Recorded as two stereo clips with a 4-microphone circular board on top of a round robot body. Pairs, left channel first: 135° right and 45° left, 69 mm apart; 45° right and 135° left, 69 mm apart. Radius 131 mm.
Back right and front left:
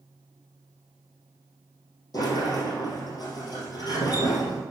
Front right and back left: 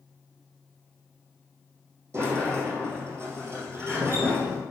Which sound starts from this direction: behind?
A sliding door, at 2.1 s.